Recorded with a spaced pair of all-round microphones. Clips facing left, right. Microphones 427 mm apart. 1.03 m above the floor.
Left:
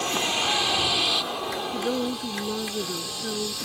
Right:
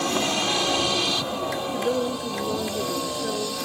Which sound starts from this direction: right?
A vehicle, at 0.0 s.